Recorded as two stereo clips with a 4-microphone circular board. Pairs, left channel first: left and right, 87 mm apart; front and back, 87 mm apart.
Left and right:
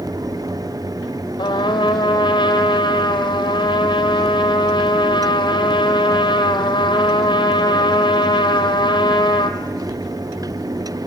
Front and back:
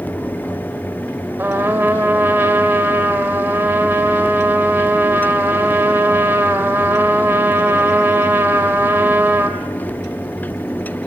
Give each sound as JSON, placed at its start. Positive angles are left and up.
{"t": 1.4, "sound": "a trumpet", "azimuth_deg": 115, "distance_m": 2.0}